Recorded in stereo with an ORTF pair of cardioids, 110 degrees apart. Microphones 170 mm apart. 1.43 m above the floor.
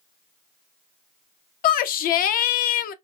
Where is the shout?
60° left, 0.5 m.